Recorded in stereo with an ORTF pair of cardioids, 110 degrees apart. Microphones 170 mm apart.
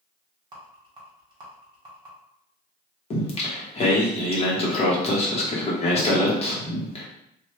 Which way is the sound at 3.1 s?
35° left.